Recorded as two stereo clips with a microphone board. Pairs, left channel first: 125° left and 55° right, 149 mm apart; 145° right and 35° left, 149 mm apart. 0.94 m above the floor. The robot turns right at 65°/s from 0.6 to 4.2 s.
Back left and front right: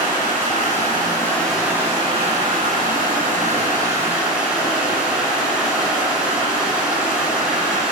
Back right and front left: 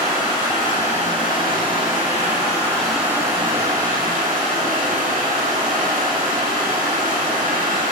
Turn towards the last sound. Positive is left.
turn(degrees=30)